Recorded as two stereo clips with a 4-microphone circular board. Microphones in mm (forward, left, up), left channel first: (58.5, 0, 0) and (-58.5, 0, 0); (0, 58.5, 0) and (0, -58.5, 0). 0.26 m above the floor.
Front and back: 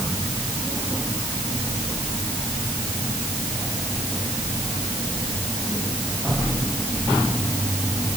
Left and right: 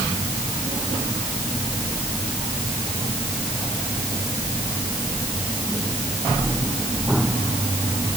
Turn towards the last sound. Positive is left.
No sound to turn to.